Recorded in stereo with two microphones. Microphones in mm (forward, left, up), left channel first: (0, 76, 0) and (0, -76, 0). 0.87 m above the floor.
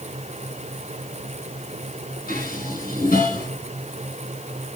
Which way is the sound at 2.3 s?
75° left (ahead or behind).